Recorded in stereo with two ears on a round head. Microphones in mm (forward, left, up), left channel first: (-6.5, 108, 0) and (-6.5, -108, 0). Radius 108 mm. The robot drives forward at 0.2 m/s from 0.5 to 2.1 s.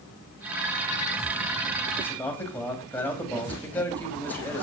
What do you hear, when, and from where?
2.0 s a man speaking: 10° left (ahead or behind), 2.5 m